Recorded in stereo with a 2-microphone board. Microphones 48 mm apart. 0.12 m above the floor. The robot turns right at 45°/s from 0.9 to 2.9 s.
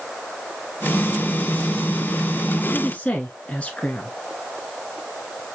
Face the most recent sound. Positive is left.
turn(degrees=30)  # may be behind; listen again after turning